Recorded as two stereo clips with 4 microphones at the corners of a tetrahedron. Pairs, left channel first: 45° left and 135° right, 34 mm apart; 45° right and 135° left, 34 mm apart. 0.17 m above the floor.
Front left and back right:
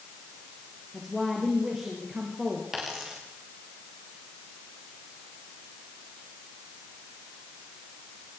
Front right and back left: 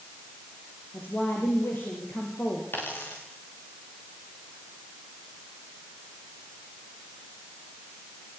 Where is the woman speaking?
50° right, 4.5 m.